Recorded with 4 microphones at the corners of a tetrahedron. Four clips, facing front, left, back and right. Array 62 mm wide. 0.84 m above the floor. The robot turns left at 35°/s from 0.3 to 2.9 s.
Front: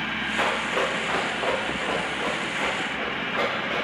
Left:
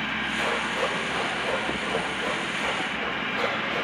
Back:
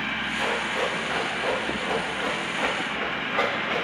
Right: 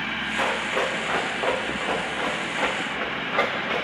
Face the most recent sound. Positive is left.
turn(degrees=-110)